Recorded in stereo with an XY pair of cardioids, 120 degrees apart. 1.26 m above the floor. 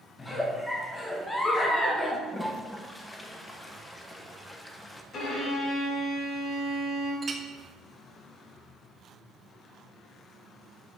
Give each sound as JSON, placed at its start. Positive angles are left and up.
{"t": 0.2, "sound": "a giggle", "azimuth_deg": 15, "distance_m": 1.2}
{"t": 2.3, "sound": "a toilet flushing", "azimuth_deg": 15, "distance_m": 0.8}
{"t": 5.1, "sound": "a violin", "azimuth_deg": 45, "distance_m": 2.5}
{"t": 7.2, "sound": "a clink", "azimuth_deg": -30, "distance_m": 0.8}